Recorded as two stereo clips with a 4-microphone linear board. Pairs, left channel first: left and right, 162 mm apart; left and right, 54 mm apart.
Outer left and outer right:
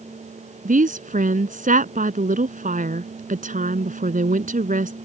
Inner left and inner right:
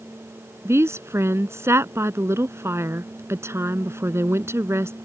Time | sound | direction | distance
0.7 | a woman speaking | 55° right (ahead or behind) | ?